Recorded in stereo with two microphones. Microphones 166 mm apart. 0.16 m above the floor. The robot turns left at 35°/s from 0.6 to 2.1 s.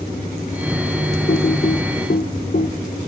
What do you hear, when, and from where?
1.3 s typing on a keyboard: 65° left (ahead or behind), 0.7 m; by 2.7 s 55° left (ahead or behind), 0.7 m